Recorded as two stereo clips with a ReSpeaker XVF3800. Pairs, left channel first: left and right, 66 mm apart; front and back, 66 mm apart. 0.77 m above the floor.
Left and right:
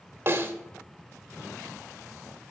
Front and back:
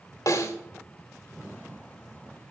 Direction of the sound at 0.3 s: 35° right.